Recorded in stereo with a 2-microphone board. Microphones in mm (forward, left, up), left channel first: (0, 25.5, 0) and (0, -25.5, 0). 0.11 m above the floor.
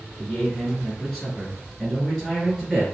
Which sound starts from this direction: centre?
A man speaking, at 0.2 s.